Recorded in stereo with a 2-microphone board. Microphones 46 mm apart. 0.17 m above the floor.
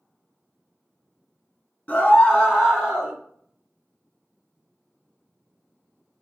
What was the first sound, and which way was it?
A scream, 30° left (ahead or behind).